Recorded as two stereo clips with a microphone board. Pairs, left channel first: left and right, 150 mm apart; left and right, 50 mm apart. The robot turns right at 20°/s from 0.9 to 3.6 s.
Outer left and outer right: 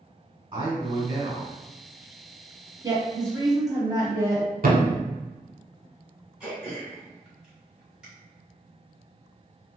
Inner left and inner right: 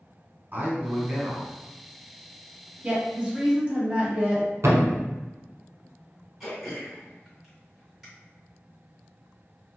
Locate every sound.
0.5 s a man speaking: 35° right (ahead or behind), 1.9 m; by 1.5 s 45° right (ahead or behind), 1.9 m
2.8 s a woman speaking: 25° right (ahead or behind), 1.1 m
4.6 s a thud: 70° right (ahead or behind), 0.8 m
6.4 s throat clearing: 5° right (ahead or behind), 1.9 m